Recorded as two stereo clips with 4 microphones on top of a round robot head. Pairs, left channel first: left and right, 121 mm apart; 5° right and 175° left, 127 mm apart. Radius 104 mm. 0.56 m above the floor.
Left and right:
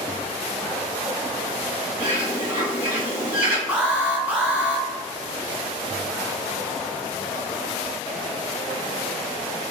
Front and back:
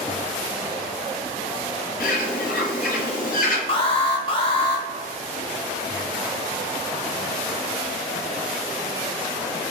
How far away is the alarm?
About 0.8 m.